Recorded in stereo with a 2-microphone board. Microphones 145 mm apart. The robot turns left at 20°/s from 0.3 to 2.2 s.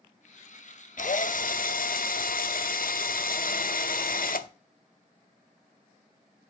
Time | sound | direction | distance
1.0 | a drill | 65° left (ahead or behind) | 0.6 m